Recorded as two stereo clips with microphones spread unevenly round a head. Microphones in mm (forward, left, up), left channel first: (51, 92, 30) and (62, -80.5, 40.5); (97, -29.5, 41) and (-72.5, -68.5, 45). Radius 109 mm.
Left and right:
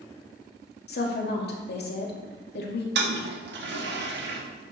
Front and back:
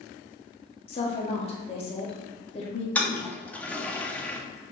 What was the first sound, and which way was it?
A woman speaking, 70° left.